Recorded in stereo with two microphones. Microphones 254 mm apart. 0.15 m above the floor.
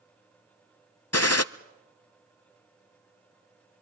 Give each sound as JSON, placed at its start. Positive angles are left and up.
{"t": 1.1, "sound": "a gunshot", "side_deg": 70, "distance_m": 0.6}